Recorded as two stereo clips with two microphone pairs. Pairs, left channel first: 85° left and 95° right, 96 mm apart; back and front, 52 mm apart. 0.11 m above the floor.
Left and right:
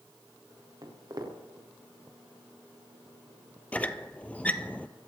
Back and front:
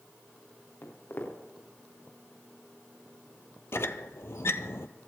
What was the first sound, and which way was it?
Footsteps, 145° right.